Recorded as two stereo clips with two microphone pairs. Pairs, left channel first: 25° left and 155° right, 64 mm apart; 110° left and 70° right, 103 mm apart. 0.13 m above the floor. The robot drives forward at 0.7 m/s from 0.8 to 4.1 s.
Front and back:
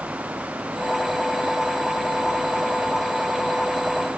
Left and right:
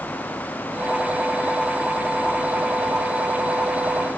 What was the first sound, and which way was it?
Only background noise.